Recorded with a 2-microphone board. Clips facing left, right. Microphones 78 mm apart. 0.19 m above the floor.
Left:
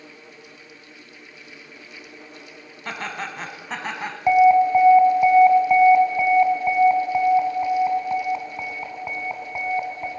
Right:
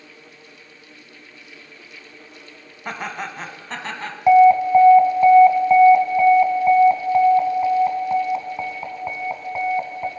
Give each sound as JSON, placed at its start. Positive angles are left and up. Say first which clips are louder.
{"t": 2.9, "sound": "laughter", "louder": "right 2 dB", "side_deg": -15, "distance_m": 1.5}
{"t": 4.3, "sound": "an alarm", "louder": "right 3 dB", "side_deg": -10, "distance_m": 1.3}